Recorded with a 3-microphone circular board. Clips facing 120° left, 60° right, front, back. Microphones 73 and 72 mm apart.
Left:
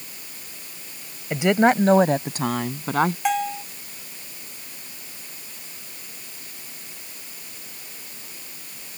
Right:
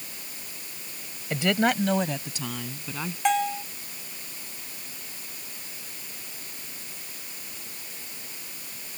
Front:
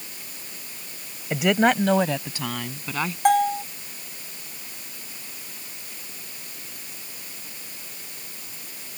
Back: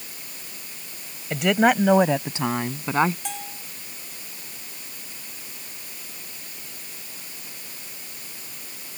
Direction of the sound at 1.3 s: 70° left.